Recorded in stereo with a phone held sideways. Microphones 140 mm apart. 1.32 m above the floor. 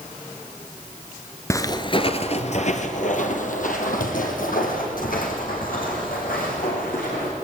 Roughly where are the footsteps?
Centre.